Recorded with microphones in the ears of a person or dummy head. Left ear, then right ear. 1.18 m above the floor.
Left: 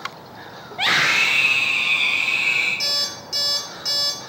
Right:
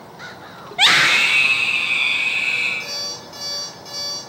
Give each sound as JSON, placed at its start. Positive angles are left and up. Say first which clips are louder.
{"t": 0.7, "sound": "a scream", "louder": "right 4 dB", "side_deg": -45, "distance_m": 0.8}
{"t": 2.8, "sound": "an alarm clock", "louder": "left 4 dB", "side_deg": 50, "distance_m": 7.0}